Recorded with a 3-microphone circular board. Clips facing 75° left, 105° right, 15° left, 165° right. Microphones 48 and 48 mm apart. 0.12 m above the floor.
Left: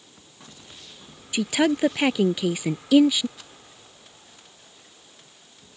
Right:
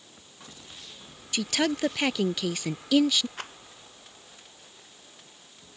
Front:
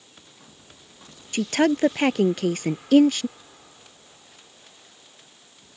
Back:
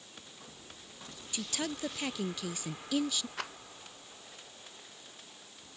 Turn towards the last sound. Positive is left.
turn(degrees=-145)